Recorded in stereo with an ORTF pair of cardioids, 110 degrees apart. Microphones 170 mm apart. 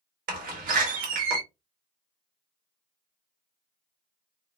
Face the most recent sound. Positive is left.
turn(degrees=-55)